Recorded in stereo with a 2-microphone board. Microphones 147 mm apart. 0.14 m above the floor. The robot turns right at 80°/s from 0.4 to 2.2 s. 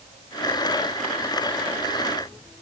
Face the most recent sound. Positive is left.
No sound to turn to.